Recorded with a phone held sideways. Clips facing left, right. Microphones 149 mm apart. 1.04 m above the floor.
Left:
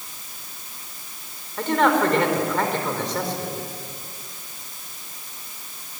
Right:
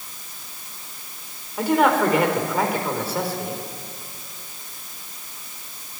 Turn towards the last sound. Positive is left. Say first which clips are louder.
# right 1 dB
turn(degrees=-10)  # may be behind; listen again after turning